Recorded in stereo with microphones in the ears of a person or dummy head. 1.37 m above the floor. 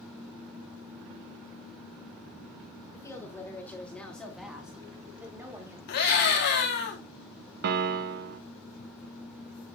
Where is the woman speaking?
15° left (ahead or behind), 3 m; by 5.8 s 15° right (ahead or behind), 2.5 m.